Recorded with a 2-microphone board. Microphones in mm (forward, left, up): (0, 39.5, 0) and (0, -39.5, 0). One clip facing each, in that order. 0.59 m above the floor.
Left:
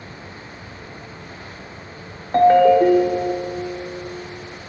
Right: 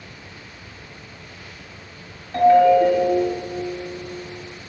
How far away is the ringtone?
About 1.0 m.